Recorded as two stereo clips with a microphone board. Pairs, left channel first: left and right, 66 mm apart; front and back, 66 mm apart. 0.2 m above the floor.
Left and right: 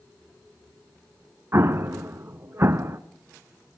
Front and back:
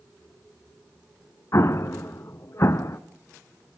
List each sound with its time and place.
1.5 s an explosion: 40° right, 0.7 m